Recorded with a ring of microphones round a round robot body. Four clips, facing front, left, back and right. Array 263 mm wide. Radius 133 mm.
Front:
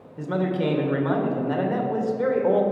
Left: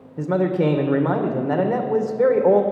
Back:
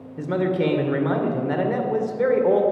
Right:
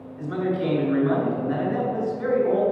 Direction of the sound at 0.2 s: 105° left.